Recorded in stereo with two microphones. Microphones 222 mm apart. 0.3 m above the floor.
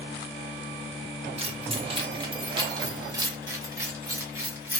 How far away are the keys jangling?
About 0.7 m.